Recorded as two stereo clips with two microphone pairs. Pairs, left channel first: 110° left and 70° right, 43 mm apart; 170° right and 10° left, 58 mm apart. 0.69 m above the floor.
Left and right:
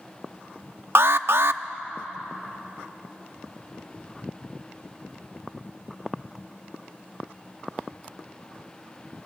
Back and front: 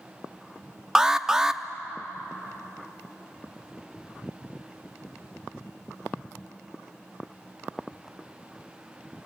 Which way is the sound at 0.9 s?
70° right.